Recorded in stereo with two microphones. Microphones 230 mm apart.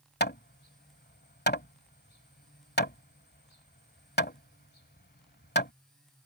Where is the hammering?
45° left (ahead or behind).